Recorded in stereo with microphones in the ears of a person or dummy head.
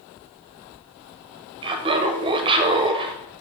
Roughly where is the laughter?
Right.